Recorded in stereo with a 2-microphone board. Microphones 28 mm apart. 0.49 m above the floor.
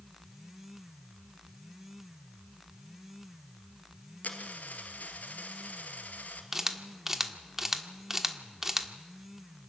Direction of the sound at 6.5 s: 15° right (ahead or behind).